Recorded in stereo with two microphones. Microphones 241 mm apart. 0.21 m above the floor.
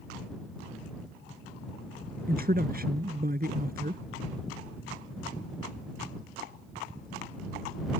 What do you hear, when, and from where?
2.3 s a man speaking: 40° right (ahead or behind)